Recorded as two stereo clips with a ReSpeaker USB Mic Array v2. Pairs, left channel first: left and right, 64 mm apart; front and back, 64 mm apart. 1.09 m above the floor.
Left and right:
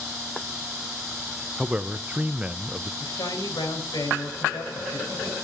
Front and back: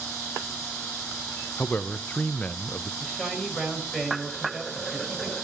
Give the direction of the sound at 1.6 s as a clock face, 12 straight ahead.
1 o'clock.